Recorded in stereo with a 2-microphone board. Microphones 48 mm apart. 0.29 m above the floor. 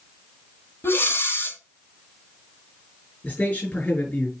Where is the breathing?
55° left (ahead or behind), 1.4 m.